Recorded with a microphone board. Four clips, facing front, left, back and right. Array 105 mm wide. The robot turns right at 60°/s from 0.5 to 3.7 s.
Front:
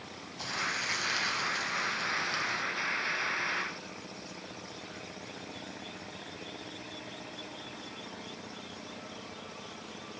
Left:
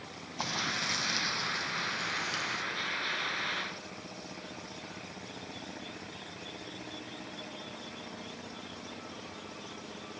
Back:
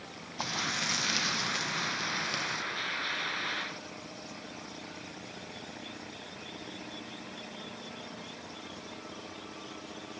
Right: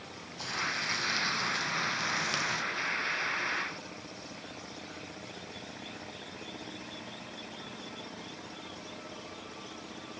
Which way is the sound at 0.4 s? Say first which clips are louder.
Left 1 dB, back 1 dB; 135° left.